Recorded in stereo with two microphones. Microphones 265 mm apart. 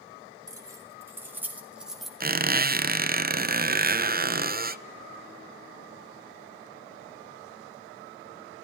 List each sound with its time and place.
0.5 s keys jangling: 10° right (ahead or behind), 4.5 m; by 2.1 s centre (ahead or behind), 2.5 m
2.2 s a squeak: 35° right (ahead or behind), 0.6 m